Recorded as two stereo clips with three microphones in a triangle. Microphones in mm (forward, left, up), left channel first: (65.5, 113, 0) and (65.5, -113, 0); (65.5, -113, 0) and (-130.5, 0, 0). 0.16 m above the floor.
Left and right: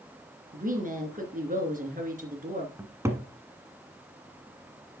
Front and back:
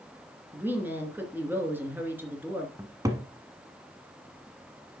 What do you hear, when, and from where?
0.5 s a woman speaking: 130° right, 2.5 m
2.8 s a cupboard door: 155° right, 1.2 m